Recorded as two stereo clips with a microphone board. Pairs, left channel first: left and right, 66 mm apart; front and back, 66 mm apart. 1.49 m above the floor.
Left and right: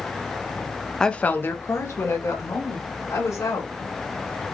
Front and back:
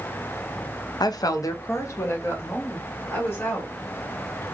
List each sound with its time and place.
1.0 s a woman speaking: 10° left, 0.5 m; by 3.7 s 60° left, 2.5 m